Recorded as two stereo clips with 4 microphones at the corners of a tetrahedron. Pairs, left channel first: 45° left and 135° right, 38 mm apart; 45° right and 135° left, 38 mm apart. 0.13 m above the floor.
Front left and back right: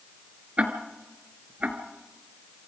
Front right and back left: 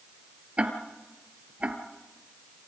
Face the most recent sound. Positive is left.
turn(degrees=180)